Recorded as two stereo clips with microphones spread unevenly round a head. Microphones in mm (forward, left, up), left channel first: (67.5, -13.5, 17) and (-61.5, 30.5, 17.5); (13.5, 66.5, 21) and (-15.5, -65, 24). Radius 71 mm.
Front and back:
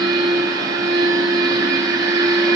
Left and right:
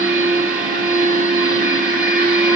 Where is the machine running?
135° right, 1.9 m.